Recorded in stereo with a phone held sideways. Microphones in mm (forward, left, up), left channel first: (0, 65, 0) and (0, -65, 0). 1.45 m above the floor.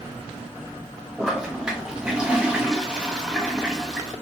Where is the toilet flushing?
5° right (ahead or behind), 0.7 m.